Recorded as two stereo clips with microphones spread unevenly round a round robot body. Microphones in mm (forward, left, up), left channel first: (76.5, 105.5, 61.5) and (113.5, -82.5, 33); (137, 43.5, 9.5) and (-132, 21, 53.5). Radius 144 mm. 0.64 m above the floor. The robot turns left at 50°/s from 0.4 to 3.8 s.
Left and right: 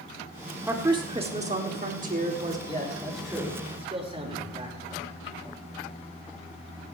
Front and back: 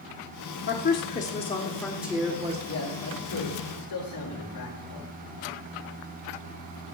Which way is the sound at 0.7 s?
10° right.